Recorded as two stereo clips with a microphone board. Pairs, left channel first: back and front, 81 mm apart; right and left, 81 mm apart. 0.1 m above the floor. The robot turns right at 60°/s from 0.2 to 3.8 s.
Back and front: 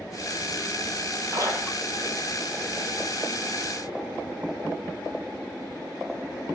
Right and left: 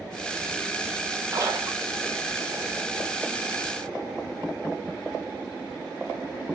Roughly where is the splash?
Ahead left.